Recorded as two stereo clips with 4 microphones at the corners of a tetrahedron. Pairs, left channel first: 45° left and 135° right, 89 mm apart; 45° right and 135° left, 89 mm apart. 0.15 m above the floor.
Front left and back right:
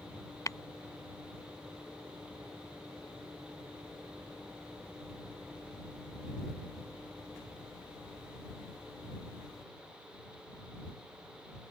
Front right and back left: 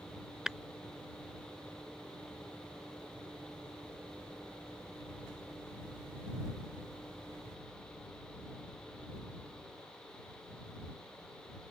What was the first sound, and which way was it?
Tapping, 55° left.